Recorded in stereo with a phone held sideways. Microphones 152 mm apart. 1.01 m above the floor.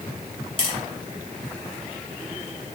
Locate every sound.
0.6 s tapping: 35° left (ahead or behind), 3 m